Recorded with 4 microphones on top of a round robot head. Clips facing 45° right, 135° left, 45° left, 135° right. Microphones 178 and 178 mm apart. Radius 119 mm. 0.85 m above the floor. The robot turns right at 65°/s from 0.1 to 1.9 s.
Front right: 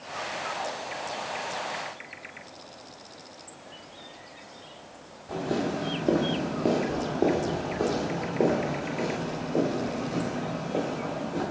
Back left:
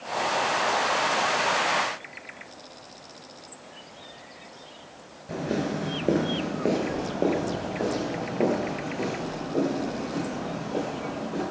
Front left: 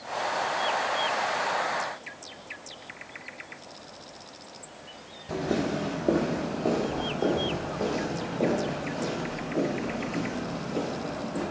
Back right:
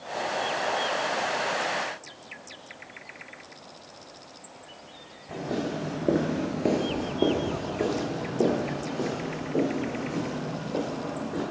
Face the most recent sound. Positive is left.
turn(degrees=-130)